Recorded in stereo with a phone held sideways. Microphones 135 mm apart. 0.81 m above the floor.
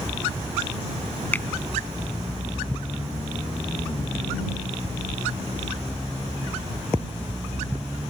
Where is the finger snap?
15° left (ahead or behind).